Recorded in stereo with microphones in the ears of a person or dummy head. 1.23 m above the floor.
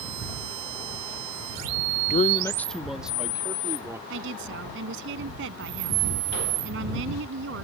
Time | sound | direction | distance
2.1 | a man speaking | 45° left (ahead or behind) | ?
4.1 | a woman speaking | 60° right (ahead or behind) | ?